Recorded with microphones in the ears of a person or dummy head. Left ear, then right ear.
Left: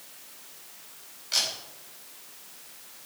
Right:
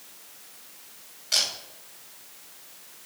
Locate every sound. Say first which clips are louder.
1.3 s a camera shutter: right 2 dB; 15° right (ahead or behind), 3 m